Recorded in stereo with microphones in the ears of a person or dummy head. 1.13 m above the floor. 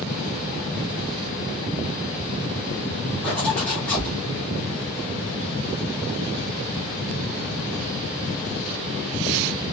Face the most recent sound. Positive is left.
turn(degrees=10)  # may be behind; listen again after turning